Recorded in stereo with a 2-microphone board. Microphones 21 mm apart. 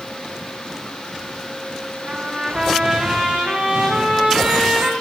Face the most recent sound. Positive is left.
turn(degrees=-50)  # may be behind; listen again after turning